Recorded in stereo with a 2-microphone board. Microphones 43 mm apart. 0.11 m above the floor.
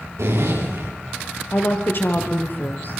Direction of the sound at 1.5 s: 45° left (ahead or behind).